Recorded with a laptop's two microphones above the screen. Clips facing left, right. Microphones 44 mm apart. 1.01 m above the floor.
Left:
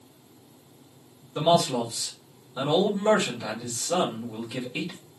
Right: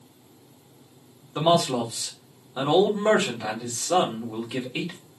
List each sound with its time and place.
1.4 s a man speaking: 35° right (ahead or behind), 1.4 m